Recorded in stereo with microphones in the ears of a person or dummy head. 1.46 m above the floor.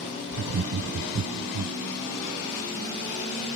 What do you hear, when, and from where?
0.3 s laughter: 55° right (ahead or behind)